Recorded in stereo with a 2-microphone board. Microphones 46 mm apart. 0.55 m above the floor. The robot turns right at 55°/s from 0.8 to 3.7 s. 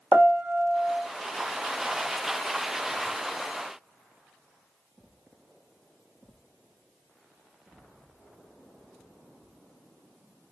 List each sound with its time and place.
0.1 s a piano: 40° right (ahead or behind), 0.7 m; by 1.0 s 30° right (ahead or behind), 0.7 m